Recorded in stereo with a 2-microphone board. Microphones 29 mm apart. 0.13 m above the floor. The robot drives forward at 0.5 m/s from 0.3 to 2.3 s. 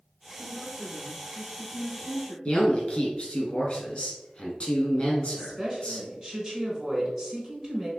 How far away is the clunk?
No clunk in this recording.